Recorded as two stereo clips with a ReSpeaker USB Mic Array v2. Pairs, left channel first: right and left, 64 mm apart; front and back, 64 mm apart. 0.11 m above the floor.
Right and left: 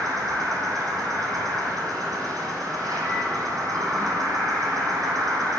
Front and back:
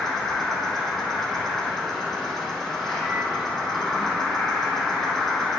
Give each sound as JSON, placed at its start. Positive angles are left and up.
{"t": 0.0, "sound": "an insect", "azimuth_deg": 90, "distance_m": 1.4}